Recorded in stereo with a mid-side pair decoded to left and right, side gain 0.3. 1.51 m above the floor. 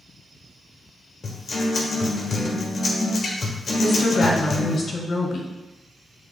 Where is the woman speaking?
65° left, 1.7 m.